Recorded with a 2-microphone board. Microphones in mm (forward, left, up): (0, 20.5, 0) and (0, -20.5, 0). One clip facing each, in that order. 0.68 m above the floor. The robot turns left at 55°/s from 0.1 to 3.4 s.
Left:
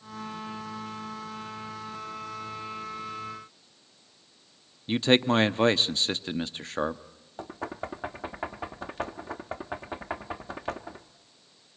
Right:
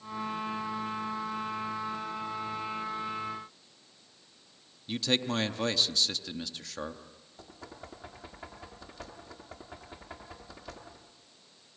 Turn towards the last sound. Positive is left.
turn(degrees=50)  # may be behind; listen again after turning